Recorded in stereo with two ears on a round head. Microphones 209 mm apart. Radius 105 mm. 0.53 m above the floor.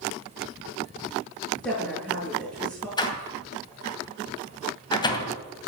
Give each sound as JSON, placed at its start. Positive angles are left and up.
{"t": 1.6, "sound": "a woman speaking", "side_deg": 0, "distance_m": 8.5}
{"t": 3.0, "sound": "a door slam", "side_deg": 20, "distance_m": 2.5}